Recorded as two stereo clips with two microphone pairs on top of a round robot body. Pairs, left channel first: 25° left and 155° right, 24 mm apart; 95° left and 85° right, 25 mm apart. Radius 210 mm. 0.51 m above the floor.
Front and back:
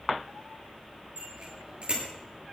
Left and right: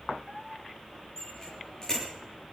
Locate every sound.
1.2 s a bicycle bell: 165° left, 9.5 m